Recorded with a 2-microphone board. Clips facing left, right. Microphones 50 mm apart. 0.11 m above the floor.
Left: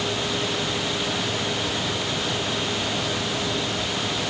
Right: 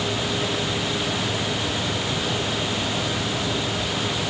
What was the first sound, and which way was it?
Only background noise.